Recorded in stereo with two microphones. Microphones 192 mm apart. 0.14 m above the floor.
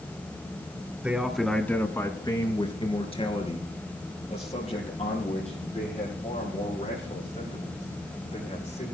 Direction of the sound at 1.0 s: 10° right (ahead or behind).